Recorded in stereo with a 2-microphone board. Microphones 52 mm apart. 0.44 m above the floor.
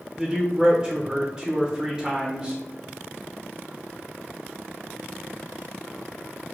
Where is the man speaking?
15° right (ahead or behind), 0.9 m.